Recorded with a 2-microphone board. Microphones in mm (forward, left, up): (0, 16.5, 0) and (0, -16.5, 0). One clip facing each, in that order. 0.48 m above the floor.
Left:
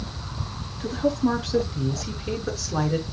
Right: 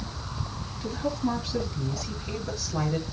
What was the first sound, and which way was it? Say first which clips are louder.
A woman speaking: left 6 dB; 80° left.